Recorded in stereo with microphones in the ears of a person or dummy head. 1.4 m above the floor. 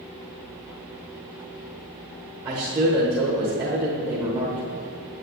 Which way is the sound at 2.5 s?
25° right (ahead or behind).